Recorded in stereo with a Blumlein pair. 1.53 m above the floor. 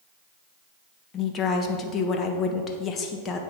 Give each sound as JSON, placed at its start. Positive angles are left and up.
{"t": 1.1, "sound": "a woman speaking", "azimuth_deg": 25, "distance_m": 1.3}